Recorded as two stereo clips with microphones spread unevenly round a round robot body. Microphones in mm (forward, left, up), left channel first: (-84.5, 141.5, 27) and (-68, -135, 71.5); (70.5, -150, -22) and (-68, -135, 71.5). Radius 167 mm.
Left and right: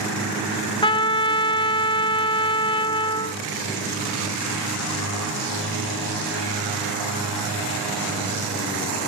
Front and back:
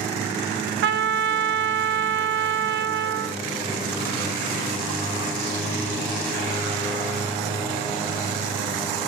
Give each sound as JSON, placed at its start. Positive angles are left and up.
{"t": 0.8, "sound": "a trumpet", "azimuth_deg": 165, "distance_m": 0.8}